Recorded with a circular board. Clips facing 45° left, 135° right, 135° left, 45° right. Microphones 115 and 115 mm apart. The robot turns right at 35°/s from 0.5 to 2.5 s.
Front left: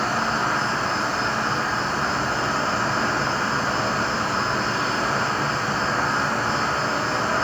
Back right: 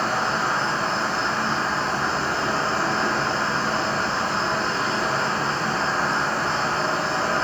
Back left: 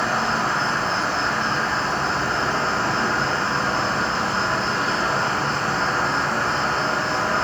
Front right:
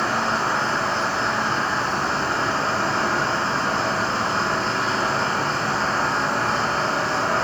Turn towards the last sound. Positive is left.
turn(degrees=30)